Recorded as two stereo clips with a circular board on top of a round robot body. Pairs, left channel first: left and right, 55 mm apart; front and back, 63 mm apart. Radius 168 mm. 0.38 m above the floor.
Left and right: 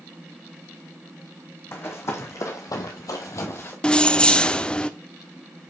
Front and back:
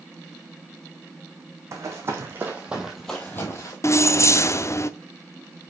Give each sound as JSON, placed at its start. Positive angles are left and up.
{"t": 1.7, "sound": "running footsteps", "azimuth_deg": 135, "distance_m": 1.5}
{"t": 3.8, "sound": "keys jangling", "azimuth_deg": 20, "distance_m": 0.7}